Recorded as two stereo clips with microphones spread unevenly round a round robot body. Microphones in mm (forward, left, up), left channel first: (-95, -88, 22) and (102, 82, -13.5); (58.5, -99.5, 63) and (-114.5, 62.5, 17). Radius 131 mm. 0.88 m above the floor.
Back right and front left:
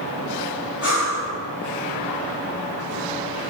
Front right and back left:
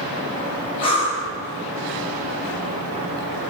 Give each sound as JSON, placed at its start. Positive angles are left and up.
{"t": 0.8, "sound": "breathing", "azimuth_deg": -115, "distance_m": 1.3}